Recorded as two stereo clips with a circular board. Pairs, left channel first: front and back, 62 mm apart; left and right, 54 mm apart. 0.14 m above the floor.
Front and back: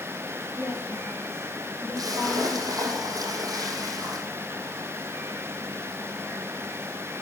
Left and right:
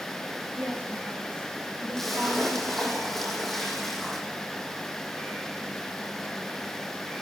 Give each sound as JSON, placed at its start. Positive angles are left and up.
{"t": 0.6, "sound": "a woman speaking", "azimuth_deg": -135, "distance_m": 7.5}
{"t": 2.0, "sound": "a splash", "azimuth_deg": 180, "distance_m": 2.5}